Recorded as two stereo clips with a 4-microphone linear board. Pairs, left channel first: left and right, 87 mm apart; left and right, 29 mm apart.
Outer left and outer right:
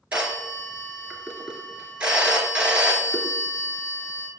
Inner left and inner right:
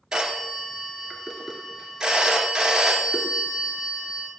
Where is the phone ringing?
15° right (ahead or behind), 1.8 m.